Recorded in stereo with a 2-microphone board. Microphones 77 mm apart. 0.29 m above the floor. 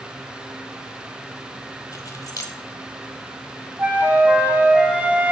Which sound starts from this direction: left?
Keys jangling, at 1.9 s.